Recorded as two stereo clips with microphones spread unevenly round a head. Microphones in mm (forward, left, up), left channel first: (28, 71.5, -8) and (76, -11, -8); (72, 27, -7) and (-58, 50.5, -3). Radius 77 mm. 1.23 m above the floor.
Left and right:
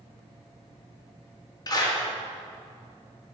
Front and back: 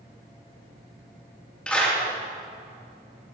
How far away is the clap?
About 2 m.